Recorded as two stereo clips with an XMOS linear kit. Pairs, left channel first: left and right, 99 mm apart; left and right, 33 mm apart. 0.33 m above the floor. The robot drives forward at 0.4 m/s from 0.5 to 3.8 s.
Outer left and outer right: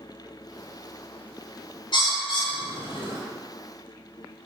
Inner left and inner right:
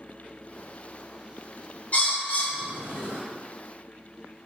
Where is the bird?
50° left (ahead or behind), 0.9 m; by 3.2 s 55° left (ahead or behind), 0.9 m.